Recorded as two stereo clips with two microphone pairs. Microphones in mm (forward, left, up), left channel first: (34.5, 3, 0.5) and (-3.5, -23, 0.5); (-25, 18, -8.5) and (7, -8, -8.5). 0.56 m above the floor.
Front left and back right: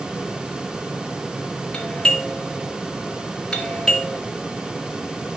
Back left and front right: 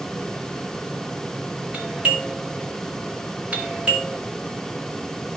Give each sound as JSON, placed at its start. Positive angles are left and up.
{"t": 1.7, "sound": "a doorbell", "azimuth_deg": -25, "distance_m": 1.6}